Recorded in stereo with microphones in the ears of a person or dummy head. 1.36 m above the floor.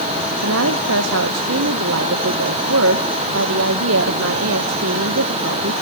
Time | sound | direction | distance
0.3 | a woman speaking | 75° right (ahead or behind) | 1.3 m